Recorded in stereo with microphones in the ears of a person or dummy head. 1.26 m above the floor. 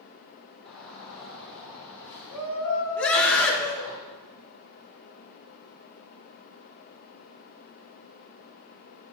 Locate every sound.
0.7 s a shout: 5° right (ahead or behind), 5.5 m; by 4.0 s 15° left (ahead or behind), 6 m
3.0 s a scream: centre (ahead or behind), 2.5 m